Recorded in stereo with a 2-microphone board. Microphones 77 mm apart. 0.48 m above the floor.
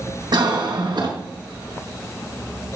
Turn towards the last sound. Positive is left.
turn(degrees=-70)  # may be behind; listen again after turning